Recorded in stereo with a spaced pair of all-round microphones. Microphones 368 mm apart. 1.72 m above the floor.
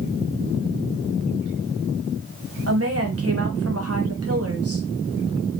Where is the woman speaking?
40° right (ahead or behind), 1.1 m.